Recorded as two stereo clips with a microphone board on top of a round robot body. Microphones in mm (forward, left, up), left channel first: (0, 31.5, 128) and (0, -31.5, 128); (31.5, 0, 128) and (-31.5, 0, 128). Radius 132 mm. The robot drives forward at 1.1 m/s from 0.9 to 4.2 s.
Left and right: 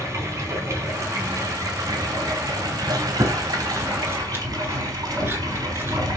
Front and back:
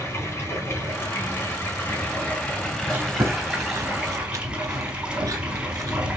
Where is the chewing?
120° right, 1.7 m; by 6.1 s 145° right, 2.5 m.